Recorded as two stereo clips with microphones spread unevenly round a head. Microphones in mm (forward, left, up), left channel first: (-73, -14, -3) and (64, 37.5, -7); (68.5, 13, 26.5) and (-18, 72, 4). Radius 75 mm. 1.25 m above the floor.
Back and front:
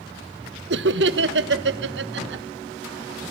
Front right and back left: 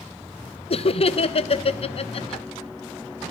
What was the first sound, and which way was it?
Laughter, straight ahead.